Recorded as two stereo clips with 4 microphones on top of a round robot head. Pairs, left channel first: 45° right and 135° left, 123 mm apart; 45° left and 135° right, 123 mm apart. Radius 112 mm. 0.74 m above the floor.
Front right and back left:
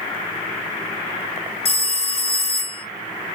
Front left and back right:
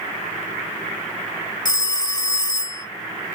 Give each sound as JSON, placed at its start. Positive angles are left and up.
{"t": 1.6, "sound": "a phone ringing", "azimuth_deg": -10, "distance_m": 1.0}